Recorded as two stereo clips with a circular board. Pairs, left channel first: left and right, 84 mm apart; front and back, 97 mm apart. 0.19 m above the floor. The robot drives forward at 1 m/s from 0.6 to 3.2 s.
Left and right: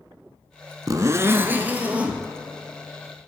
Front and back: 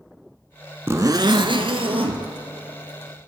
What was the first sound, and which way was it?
A zipper, 120° right.